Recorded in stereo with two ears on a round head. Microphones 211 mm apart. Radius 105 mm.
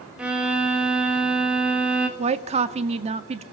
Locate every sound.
0.2 s a violin: 5° right (ahead or behind), 3 m
2.2 s a woman speaking: 25° right (ahead or behind), 1.6 m